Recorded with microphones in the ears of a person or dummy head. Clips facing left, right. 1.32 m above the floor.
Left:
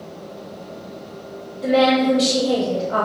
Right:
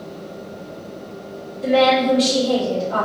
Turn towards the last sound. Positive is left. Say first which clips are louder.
# even
turn(degrees=5)  # may be behind; listen again after turning